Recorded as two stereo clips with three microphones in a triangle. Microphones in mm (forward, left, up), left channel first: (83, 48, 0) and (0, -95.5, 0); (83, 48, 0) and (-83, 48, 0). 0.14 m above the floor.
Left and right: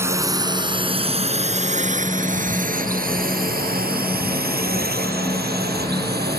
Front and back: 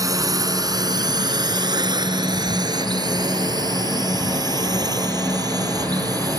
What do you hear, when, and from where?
0.0 s a drone: 165° right; by 6.4 s 115° right